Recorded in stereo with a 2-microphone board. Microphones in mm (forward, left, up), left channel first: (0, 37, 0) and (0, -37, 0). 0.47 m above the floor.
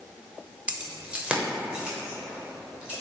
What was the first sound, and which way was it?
Keys jangling, 15° right (ahead or behind).